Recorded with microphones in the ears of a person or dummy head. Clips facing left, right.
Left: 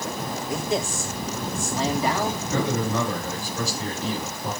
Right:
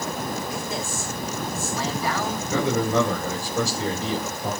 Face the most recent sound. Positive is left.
turn(degrees=-70)  # may be behind; listen again after turning